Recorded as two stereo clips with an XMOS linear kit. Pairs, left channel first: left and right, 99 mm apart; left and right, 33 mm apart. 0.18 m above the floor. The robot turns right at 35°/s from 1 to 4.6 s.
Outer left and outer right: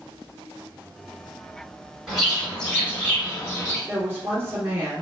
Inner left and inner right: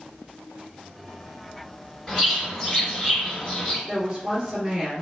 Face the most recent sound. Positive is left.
turn(degrees=-10)  # may be behind; listen again after turning